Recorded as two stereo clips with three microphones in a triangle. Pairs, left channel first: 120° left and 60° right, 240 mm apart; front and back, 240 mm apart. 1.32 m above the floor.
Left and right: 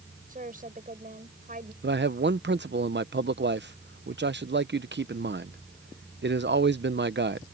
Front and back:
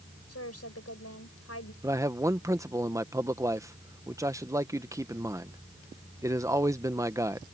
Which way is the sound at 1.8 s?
105° right.